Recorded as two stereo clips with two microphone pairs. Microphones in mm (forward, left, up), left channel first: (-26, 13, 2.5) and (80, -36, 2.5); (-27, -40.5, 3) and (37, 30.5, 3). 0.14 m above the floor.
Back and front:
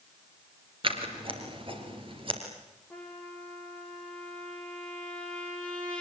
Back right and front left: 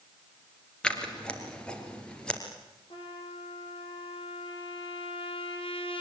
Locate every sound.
0.8 s scissors: 55° right, 3.5 m
2.9 s a trumpet: 125° right, 4.5 m